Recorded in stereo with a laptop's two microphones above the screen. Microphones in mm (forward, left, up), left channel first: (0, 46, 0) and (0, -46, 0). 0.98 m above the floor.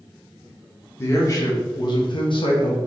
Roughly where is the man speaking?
Left.